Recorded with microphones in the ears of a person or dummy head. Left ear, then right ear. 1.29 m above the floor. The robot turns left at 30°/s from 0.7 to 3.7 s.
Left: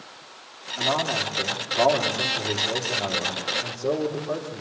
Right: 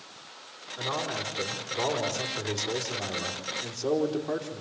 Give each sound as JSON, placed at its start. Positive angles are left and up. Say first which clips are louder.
{"t": 0.8, "sound": "a man speaking", "louder": "left 7 dB", "azimuth_deg": 35, "distance_m": 3.5}